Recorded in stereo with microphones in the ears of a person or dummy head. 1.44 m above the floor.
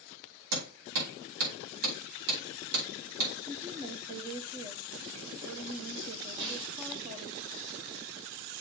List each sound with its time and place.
0.5 s hammering: 75° right (ahead or behind), 5 m
3.5 s a woman speaking: 25° right (ahead or behind), 1.1 m
6.4 s a snare drum: 25° right (ahead or behind), 1.8 m